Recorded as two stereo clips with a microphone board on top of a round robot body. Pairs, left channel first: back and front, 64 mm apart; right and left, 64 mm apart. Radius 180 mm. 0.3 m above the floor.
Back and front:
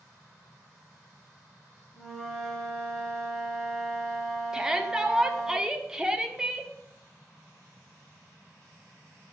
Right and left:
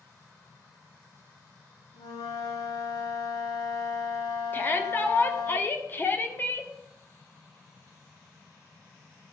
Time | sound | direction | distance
1.9 | a flute | 95° right | 1.6 m
4.5 | a shout | 75° right | 1.3 m